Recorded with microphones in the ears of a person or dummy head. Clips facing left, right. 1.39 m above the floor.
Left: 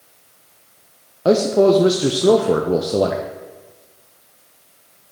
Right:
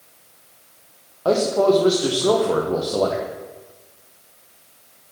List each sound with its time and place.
1.2 s a man speaking: 30° left (ahead or behind), 0.6 m